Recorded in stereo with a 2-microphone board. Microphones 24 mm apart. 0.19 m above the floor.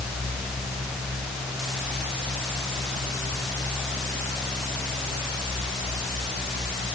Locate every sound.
Only background noise.